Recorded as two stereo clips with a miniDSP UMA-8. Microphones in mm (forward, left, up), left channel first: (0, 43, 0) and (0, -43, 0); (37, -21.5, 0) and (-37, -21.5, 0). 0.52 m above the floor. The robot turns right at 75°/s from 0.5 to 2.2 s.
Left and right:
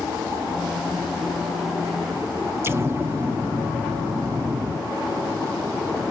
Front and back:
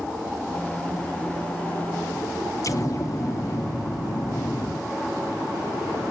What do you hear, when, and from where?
2.6 s an explosion: 30° right, 0.6 m